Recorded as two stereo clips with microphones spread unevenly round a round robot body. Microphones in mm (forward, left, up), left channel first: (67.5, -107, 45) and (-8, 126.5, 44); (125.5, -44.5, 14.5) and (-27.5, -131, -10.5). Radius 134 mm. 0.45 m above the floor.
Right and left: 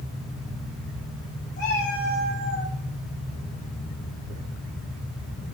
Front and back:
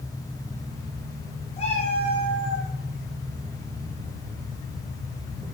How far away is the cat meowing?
About 7.5 m.